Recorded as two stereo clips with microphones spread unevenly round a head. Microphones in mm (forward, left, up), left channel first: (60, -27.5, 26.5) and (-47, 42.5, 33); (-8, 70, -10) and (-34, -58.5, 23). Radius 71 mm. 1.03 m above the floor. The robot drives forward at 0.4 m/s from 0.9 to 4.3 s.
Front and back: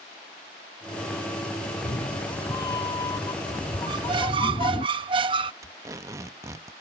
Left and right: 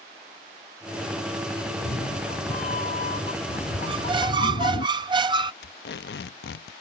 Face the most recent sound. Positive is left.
turn(degrees=80)